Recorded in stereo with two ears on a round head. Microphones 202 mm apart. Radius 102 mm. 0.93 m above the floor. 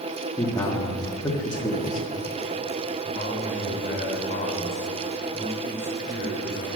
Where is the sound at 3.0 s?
40° left (ahead or behind), 4 m.